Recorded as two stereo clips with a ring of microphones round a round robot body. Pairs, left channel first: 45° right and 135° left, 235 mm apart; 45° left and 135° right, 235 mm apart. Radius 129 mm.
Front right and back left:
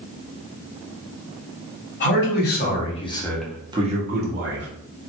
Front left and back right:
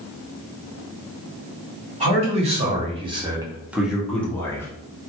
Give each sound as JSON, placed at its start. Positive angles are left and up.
{"t": 2.0, "sound": "a man speaking", "azimuth_deg": -75, "distance_m": 1.7}